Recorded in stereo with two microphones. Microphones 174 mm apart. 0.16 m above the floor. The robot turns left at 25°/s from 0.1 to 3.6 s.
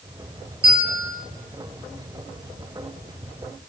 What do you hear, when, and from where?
0.6 s a bell: 35° right (ahead or behind), 1.0 m; by 1.1 s 40° right (ahead or behind), 1.0 m